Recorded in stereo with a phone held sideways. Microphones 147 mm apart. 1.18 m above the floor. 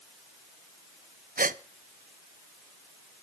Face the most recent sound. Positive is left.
turn(degrees=-75)  # may be behind; listen again after turning